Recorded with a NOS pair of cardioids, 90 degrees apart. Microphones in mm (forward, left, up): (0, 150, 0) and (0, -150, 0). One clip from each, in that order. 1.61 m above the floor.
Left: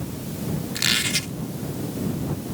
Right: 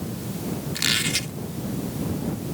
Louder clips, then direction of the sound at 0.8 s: Left 1 dB; 5° left.